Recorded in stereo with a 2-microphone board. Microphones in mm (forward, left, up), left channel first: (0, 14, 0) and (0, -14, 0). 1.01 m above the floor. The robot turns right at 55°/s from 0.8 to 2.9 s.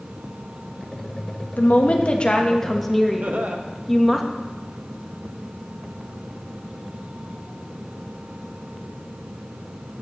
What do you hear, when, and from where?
1.6 s a woman speaking: 110° left, 1.2 m; by 4.2 s straight behind, 1.2 m
3.2 s laughter: 60° right (ahead or behind), 1.1 m